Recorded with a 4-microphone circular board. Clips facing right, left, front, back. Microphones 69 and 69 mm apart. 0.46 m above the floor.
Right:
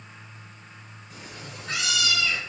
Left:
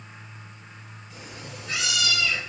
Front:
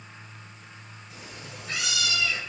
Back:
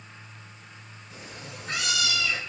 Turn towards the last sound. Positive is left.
turn(degrees=-170)